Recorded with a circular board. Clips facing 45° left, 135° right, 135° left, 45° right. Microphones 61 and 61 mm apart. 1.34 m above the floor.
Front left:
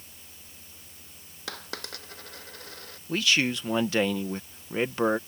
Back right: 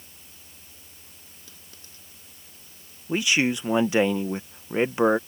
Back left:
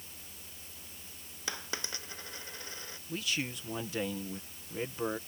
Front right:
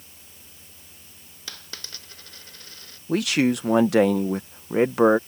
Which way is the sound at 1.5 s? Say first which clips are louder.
Front left 14 dB, back left 3 dB; 65° left.